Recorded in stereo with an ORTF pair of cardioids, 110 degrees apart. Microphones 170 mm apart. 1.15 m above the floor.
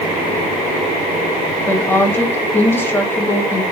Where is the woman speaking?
15° left, 0.7 m.